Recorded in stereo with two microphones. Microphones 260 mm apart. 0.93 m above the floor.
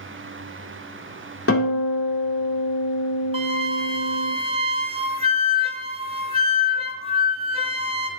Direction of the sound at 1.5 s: 60° left (ahead or behind).